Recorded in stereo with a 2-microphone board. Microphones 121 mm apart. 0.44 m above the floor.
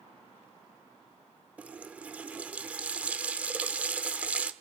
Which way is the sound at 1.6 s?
10° right (ahead or behind).